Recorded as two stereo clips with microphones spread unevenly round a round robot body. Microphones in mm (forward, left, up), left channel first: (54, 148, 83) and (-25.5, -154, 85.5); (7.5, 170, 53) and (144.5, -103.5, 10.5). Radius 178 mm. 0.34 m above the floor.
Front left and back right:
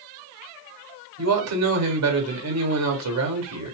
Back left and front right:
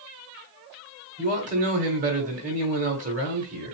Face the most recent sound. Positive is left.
turn(degrees=-115)